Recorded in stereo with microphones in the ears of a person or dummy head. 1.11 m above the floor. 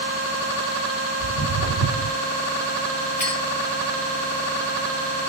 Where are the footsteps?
45° left (ahead or behind), 1.6 m.